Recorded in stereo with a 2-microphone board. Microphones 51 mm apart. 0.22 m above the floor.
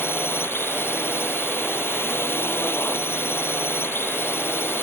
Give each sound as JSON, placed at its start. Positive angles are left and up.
{"t": 0.0, "sound": "a drone", "side_deg": 50}